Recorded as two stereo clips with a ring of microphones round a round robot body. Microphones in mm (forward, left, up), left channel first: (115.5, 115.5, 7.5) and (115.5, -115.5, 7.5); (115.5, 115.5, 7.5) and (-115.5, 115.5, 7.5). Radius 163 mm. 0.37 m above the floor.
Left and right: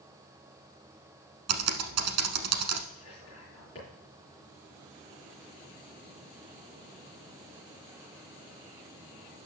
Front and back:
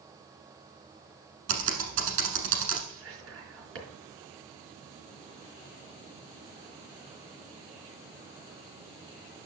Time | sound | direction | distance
1.5 | typing on a keyboard | 125° right | 0.9 m
2.9 | whispering | 160° left | 4 m